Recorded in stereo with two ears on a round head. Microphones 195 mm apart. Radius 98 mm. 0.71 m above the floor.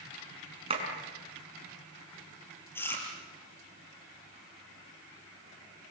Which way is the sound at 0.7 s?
25° right (ahead or behind).